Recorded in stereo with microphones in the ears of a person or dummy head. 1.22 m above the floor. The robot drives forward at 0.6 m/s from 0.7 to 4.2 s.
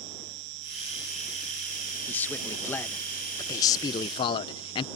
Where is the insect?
65° right (ahead or behind); by 5.0 s 75° right (ahead or behind).